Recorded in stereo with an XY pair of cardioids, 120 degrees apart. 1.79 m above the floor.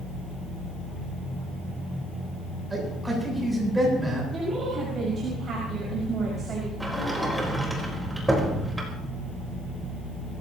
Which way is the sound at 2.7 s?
10° right.